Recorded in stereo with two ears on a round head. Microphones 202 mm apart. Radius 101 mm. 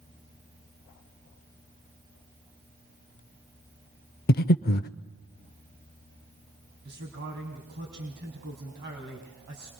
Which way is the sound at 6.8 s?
50° right (ahead or behind).